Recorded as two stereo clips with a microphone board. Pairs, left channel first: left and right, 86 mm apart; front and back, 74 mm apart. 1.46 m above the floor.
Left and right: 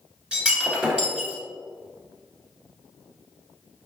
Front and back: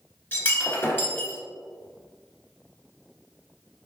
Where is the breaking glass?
20° right, 1.4 m.